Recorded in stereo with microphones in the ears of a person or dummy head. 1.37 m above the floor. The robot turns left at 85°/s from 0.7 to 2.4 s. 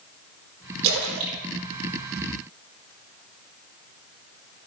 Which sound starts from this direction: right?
A splash, at 0.8 s.